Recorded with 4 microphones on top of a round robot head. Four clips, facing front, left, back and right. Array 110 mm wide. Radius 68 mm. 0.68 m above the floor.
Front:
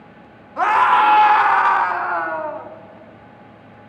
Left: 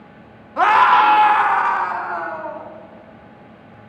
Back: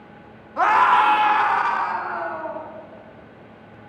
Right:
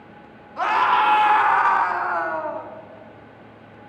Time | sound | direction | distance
0.6 | a scream | 90° left | 1.1 m